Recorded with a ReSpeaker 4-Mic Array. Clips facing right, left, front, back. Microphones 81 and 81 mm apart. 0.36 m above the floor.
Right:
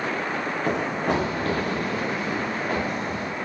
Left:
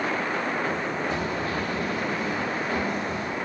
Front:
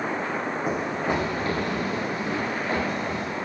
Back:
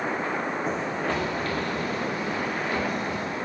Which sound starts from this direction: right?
Running footsteps, at 0.7 s.